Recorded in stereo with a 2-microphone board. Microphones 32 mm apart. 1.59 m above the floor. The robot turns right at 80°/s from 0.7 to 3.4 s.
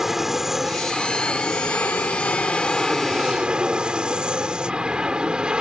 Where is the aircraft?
10° right; by 5.6 s 155° right.